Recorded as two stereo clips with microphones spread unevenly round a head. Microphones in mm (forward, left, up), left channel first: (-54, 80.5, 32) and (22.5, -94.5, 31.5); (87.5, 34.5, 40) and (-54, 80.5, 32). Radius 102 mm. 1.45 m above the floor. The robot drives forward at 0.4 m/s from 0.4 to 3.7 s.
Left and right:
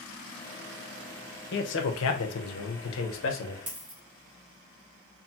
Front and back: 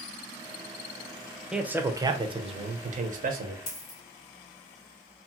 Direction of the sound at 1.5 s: 75° left.